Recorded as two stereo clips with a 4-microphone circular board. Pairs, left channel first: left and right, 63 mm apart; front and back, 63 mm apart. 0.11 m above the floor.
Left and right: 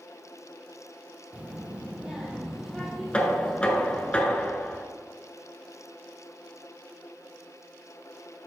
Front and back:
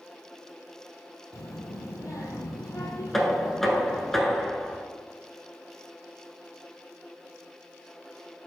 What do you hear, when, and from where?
1.3 s a child speaking: 25° right, 1.9 m; by 4.1 s 10° left, 2.5 m
3.1 s knocking: 75° left, 1.0 m